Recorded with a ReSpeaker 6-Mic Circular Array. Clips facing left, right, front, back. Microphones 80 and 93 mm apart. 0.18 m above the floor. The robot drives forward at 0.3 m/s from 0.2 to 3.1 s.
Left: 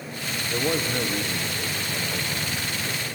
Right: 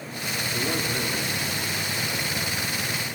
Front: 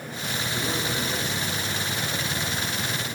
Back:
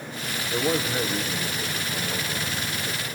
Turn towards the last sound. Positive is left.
turn(degrees=135)